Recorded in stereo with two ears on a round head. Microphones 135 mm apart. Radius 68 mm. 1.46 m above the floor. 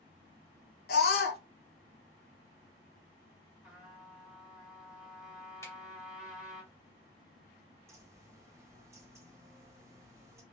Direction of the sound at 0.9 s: 75° left (ahead or behind).